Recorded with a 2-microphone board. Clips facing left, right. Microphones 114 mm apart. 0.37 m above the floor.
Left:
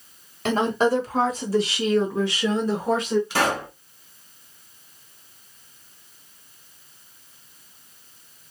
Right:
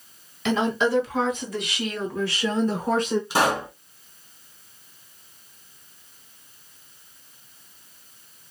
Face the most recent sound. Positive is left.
turn(degrees=-20)  # may be behind; listen again after turning